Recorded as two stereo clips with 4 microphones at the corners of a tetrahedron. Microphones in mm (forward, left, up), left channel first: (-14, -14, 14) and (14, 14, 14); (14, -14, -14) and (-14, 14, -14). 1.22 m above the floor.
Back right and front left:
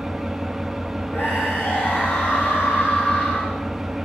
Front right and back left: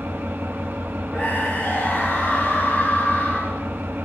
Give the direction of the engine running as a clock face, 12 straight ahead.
8 o'clock.